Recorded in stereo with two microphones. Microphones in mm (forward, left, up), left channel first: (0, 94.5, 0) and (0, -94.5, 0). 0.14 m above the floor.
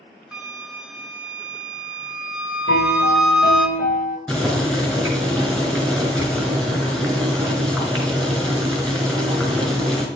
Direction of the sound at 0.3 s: 5° right (ahead or behind).